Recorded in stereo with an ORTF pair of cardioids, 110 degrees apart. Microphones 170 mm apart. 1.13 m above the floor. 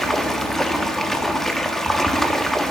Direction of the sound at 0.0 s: 5° left.